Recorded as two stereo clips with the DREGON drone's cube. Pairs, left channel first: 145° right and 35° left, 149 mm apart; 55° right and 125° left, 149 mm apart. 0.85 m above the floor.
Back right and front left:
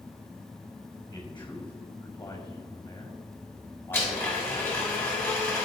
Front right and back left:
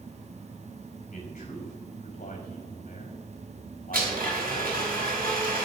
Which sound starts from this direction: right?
A man speaking, at 1.1 s.